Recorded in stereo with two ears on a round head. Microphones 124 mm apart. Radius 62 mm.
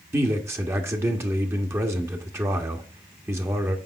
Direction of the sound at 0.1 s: 20° right (ahead or behind).